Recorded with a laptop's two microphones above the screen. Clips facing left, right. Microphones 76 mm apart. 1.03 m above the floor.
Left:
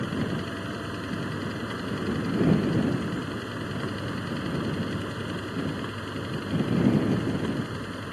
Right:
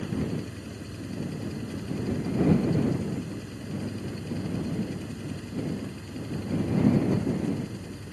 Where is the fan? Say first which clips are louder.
Left 2 dB; 75° left (ahead or behind).